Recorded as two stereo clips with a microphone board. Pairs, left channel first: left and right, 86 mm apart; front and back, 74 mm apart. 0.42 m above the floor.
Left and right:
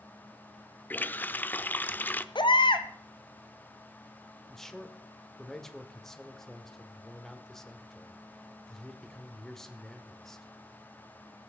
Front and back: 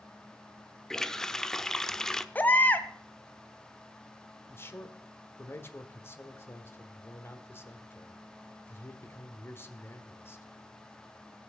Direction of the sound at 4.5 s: 10° left.